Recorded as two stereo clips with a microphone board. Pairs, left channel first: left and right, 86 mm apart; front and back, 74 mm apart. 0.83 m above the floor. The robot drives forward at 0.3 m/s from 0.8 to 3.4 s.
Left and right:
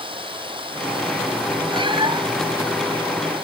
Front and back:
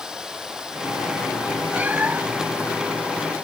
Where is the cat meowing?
110° right.